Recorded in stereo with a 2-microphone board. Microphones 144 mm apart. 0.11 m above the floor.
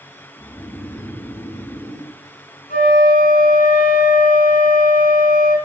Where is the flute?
70° left (ahead or behind), 3.5 m.